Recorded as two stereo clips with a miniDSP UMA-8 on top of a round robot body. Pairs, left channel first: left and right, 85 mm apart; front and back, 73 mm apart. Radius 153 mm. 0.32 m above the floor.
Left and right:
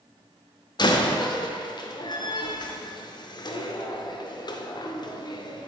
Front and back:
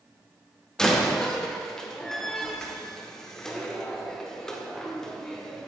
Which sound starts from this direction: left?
A door slam, at 0.8 s.